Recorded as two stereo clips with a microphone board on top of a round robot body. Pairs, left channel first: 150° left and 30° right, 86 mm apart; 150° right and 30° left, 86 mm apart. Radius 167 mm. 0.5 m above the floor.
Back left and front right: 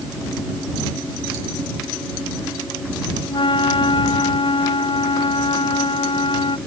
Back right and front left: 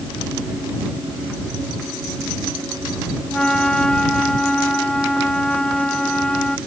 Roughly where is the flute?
Behind left.